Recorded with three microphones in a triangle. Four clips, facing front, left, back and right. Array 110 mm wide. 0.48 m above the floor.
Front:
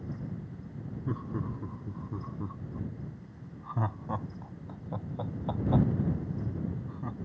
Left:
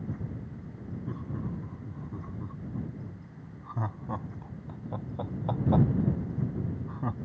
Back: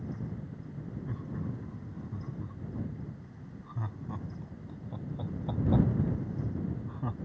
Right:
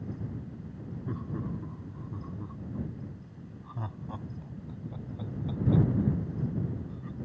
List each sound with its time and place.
1.1 s laughter: 5° right; by 7.2 s 100° left